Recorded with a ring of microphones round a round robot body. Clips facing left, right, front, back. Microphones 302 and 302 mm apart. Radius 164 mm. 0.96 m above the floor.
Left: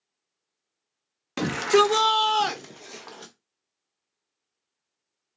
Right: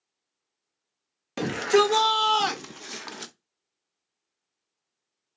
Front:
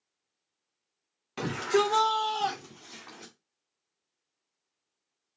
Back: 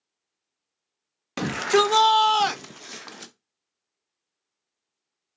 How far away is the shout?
About 1.1 m.